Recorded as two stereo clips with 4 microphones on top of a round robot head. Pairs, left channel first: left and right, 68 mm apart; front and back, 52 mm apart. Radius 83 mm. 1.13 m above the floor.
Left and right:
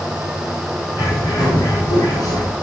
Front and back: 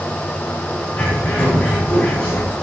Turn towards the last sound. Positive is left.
turn(degrees=60)